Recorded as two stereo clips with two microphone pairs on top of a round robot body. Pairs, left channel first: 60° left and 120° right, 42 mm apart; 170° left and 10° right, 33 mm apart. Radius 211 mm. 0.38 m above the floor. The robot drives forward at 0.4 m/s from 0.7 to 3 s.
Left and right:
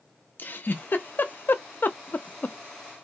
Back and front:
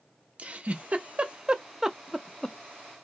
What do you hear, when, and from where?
0.4 s a giggle: 20° left, 0.9 m; by 2.6 s 100° left, 0.6 m